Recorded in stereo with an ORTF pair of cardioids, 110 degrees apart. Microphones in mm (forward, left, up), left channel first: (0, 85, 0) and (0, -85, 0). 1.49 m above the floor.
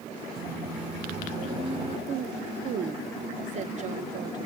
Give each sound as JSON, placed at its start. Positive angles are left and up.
{"t": 0.4, "sound": "a microwave", "azimuth_deg": -40, "distance_m": 3.5}
{"t": 2.1, "sound": "a woman speaking", "azimuth_deg": -45, "distance_m": 0.7}